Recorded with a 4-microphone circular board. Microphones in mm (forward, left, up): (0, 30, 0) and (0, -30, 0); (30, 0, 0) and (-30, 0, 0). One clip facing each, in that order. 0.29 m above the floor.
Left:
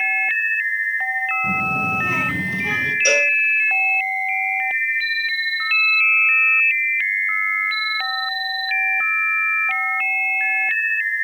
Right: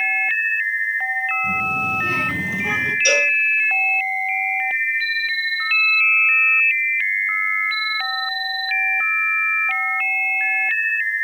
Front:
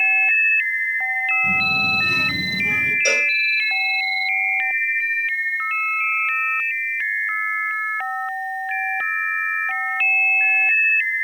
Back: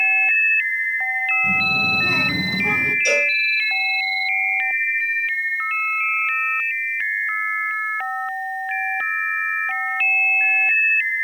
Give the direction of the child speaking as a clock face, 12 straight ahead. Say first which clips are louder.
Even, even; 9 o'clock.